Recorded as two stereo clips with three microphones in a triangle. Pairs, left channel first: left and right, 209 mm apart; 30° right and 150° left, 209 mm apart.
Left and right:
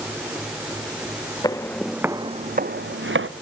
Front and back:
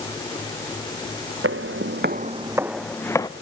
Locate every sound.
1.4 s footsteps: 160° left, 0.8 m; by 3.3 s 105° right, 1.0 m